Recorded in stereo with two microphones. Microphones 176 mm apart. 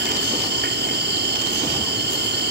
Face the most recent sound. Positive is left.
turn(degrees=-85)